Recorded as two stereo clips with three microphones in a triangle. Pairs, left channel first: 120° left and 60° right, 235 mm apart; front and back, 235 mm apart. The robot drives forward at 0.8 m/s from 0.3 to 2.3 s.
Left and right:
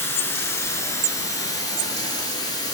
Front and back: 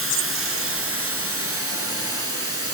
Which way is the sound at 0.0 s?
160° right.